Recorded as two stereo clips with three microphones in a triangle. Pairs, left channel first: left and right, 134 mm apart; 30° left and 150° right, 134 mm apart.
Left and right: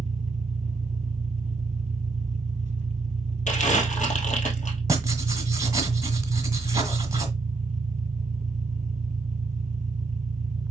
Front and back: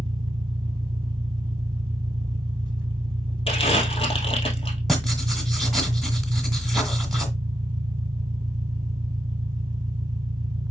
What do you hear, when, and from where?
0.0 s an engine running: 100° right, 0.8 m
3.5 s crumpling: 75° left, 1.7 m
4.9 s writing: 60° right, 1.5 m